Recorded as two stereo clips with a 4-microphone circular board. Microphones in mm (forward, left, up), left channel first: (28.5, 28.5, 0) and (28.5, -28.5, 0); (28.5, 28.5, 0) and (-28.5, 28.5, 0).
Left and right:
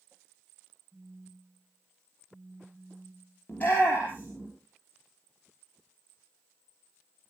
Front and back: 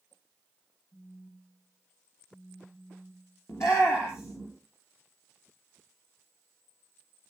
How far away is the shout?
About 3 m.